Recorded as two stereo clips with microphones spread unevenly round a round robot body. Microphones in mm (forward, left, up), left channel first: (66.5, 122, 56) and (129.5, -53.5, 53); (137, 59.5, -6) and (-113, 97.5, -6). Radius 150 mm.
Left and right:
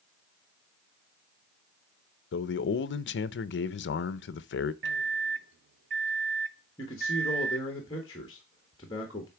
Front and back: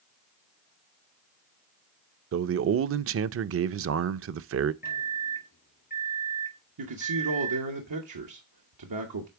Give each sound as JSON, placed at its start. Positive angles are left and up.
{"t": 2.3, "sound": "a man speaking", "azimuth_deg": 135, "distance_m": 0.5}
{"t": 4.8, "sound": "a microwave", "azimuth_deg": -65, "distance_m": 0.9}
{"t": 6.8, "sound": "a man speaking", "azimuth_deg": -175, "distance_m": 1.1}